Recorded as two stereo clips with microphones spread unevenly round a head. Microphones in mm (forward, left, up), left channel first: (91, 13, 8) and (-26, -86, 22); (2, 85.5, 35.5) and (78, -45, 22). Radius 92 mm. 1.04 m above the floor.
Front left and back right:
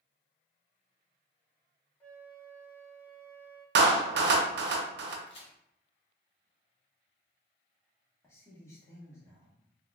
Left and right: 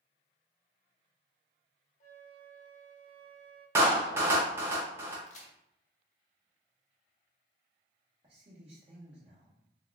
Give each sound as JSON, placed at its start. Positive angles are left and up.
{"t": 2.0, "sound": "a flute", "azimuth_deg": 115, "distance_m": 0.8}
{"t": 3.8, "sound": "a clap", "azimuth_deg": -135, "distance_m": 0.5}
{"t": 5.3, "sound": "a crack", "azimuth_deg": 100, "distance_m": 0.8}
{"t": 8.2, "sound": "a man speaking", "azimuth_deg": -25, "distance_m": 1.2}